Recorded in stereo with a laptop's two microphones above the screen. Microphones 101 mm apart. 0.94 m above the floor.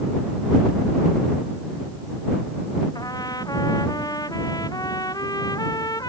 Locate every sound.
3.0 s a trumpet: 35° left (ahead or behind)